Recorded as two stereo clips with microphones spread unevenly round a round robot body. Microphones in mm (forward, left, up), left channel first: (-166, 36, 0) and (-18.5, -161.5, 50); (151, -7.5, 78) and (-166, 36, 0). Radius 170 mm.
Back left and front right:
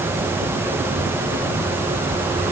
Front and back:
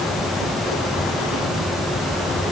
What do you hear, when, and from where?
Only background noise.